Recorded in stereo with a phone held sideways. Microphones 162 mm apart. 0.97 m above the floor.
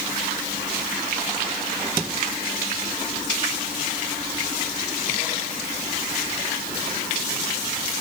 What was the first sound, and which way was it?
Only background noise.